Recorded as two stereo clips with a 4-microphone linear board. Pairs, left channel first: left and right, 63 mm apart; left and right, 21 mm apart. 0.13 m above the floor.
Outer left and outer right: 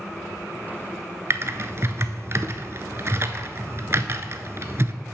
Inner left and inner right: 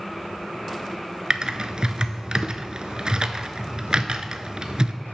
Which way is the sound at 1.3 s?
45° right (ahead or behind).